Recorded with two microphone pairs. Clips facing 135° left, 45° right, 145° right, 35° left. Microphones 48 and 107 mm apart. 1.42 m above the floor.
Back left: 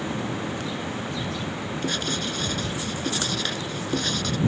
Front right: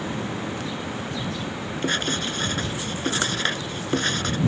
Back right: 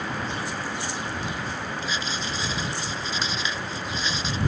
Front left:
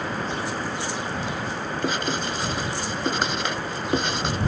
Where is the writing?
5° left.